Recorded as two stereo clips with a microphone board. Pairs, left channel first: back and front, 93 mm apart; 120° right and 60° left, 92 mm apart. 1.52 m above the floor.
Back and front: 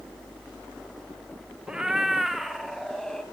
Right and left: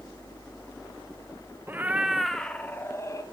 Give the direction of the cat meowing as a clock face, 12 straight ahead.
10 o'clock.